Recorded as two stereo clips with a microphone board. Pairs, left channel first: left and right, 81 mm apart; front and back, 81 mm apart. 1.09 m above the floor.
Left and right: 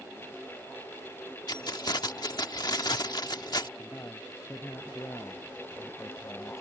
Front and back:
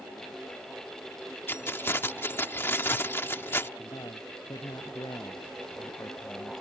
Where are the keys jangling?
60° left.